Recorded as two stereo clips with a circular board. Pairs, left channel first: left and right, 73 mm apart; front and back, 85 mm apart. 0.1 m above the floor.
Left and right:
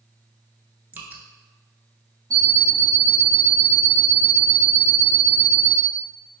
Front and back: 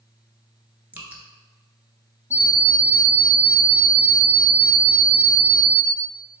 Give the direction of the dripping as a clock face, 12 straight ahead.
4 o'clock.